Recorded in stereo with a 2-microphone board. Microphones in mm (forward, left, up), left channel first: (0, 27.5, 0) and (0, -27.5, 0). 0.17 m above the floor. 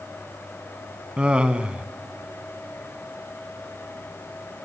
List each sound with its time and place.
1.2 s laughter: 20° right (ahead or behind), 1.2 m